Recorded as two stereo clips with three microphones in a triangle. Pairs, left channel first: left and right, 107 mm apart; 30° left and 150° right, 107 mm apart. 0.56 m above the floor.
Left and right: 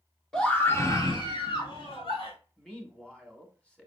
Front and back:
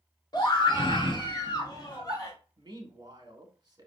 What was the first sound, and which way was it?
A scream, 10° left.